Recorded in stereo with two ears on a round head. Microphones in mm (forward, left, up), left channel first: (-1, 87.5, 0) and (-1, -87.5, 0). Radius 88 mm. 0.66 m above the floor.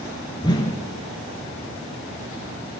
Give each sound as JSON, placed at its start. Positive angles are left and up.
{"t": 0.4, "sound": "a whoosh", "side_deg": 20, "distance_m": 1.7}